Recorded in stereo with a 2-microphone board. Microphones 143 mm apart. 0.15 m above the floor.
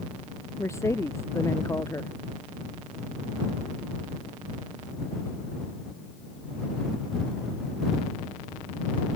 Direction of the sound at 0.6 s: 20° left (ahead or behind).